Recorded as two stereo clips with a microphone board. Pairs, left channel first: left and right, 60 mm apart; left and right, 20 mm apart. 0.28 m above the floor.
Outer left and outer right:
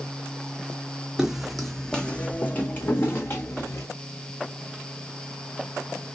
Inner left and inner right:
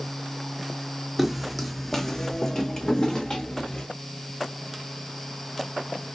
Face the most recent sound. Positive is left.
turn(degrees=50)  # may be behind; listen again after turning